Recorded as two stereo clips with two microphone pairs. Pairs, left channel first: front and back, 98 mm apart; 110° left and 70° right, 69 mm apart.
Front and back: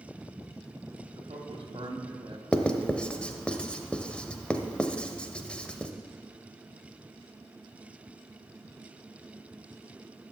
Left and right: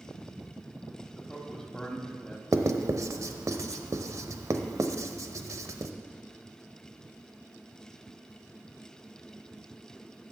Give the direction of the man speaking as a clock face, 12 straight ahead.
6 o'clock.